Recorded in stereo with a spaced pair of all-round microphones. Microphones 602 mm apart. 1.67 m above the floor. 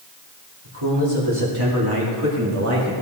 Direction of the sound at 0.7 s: 45° right (ahead or behind).